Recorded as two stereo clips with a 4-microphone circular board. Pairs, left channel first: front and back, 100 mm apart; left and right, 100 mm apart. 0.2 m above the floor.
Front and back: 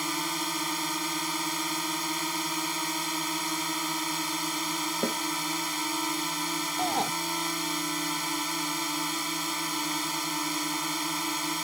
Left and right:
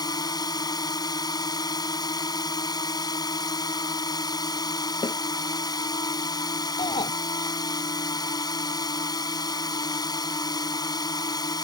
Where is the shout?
90° left.